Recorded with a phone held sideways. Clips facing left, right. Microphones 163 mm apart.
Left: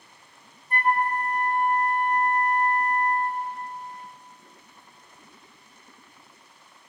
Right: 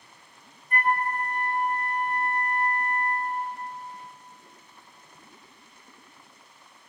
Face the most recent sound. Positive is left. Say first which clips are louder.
# left 2 dB
turn(degrees=35)  # may be behind; listen again after turning